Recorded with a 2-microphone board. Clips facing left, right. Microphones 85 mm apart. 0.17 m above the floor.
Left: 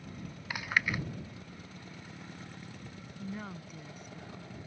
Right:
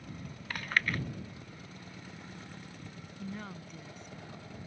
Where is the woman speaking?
5° left (ahead or behind).